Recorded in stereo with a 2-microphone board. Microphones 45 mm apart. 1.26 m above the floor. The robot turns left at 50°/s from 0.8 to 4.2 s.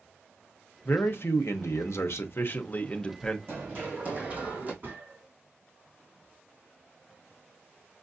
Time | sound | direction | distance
0.8 | a man speaking | 135° left | 0.8 m
3.5 | running footsteps | 55° right (ahead or behind) | 3 m
4.8 | a gunshot | 40° right (ahead or behind) | 3 m